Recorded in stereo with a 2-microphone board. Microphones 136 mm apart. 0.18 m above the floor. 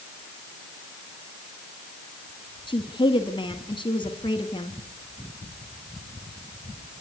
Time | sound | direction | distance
2.7 | a woman speaking | 35° left (ahead or behind) | 1.6 m